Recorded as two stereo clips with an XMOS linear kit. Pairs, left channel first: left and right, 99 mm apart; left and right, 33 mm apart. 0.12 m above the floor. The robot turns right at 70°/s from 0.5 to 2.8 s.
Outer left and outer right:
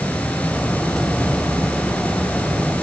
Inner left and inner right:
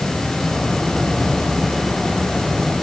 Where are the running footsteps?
I don't hear running footsteps.